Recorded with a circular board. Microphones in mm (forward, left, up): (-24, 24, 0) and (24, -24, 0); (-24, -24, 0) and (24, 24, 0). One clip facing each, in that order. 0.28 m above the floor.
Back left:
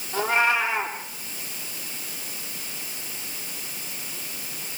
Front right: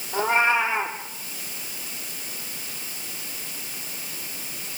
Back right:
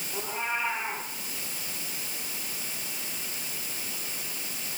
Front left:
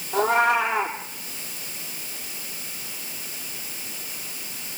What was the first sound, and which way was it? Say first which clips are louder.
A cat meowing: front right 1 dB, front left 13 dB; 25° left.